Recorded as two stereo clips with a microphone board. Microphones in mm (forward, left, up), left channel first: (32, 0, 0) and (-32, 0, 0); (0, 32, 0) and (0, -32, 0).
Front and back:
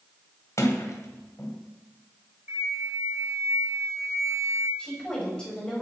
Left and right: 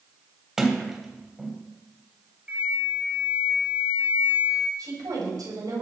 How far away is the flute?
About 2 m.